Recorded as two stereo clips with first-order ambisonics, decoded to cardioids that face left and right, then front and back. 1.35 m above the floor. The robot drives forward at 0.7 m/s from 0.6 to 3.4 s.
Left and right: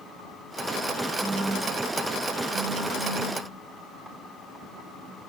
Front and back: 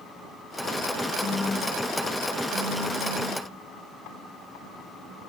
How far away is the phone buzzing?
About 0.8 m.